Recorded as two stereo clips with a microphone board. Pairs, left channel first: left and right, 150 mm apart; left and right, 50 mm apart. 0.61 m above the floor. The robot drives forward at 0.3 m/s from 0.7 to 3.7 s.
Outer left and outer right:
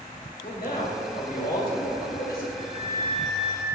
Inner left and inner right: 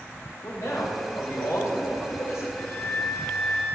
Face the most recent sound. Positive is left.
turn(degrees=30)  # may be behind; listen again after turning